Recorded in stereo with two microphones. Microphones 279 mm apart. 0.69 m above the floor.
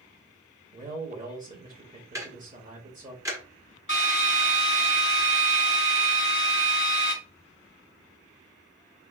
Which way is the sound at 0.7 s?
30° right (ahead or behind).